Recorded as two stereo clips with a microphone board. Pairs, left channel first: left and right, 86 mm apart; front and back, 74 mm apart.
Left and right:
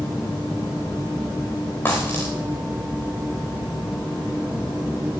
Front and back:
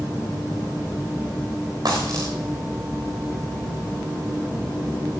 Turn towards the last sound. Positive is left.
turn(degrees=150)